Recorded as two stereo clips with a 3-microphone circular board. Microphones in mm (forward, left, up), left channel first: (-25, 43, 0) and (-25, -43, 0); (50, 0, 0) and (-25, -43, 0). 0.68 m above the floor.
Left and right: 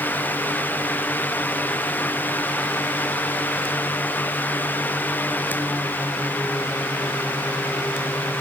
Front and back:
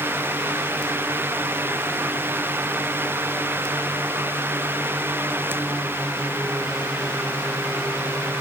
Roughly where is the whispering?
I don't hear whispering.